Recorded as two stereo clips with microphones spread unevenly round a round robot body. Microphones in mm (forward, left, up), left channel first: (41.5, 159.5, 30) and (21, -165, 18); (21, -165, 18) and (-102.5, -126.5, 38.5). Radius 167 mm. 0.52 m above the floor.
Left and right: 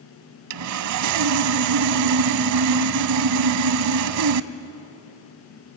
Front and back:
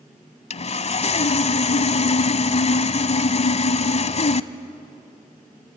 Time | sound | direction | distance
0.5 | sawing | 60° right | 0.6 m